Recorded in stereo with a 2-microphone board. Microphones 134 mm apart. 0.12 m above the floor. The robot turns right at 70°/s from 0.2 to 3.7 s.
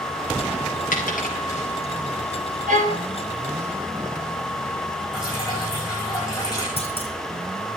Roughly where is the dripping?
Left.